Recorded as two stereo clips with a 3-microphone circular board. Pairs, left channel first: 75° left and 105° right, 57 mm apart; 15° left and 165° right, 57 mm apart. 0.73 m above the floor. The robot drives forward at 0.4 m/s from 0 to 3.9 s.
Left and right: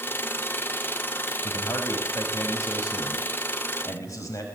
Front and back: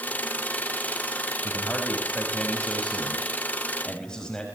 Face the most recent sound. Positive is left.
turn(degrees=90)